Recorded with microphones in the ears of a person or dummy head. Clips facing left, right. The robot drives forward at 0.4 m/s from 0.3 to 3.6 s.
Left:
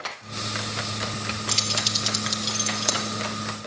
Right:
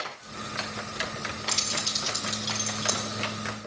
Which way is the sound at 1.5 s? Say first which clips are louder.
Left 4 dB; 50° left (ahead or behind).